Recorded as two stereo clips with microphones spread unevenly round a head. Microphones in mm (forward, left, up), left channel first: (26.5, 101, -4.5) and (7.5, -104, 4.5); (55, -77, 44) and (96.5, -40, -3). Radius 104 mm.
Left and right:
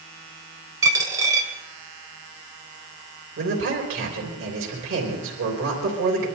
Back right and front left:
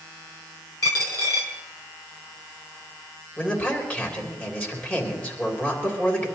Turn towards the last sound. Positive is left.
turn(degrees=-70)